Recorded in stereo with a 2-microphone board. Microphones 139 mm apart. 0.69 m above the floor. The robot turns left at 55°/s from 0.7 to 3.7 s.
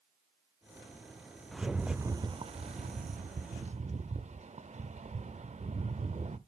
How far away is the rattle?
About 0.6 m.